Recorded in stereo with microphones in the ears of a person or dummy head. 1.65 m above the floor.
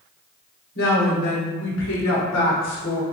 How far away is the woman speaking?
About 1.2 m.